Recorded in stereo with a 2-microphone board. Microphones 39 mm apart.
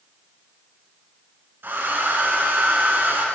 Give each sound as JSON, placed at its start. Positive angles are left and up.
{"t": 1.6, "sound": "a hair dryer", "side_deg": -70, "distance_m": 1.7}